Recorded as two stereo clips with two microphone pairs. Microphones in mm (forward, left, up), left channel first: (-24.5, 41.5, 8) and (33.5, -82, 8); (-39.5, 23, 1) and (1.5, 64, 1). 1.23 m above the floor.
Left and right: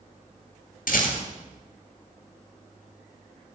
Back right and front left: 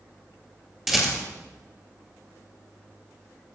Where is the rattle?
135° left, 2 m.